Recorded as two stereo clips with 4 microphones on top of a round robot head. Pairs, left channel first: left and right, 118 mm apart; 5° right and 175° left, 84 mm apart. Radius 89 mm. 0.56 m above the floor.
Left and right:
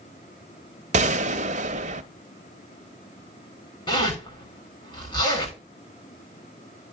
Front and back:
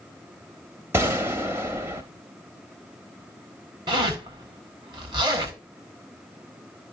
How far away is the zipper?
About 9.5 m.